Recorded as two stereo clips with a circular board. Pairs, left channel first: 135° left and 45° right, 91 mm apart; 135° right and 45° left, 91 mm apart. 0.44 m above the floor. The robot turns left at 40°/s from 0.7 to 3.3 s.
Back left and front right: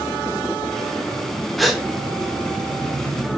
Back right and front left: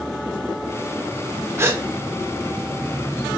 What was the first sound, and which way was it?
A gasp, 50° left.